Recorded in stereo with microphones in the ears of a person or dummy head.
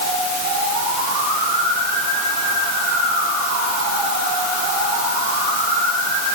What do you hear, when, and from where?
Only background noise.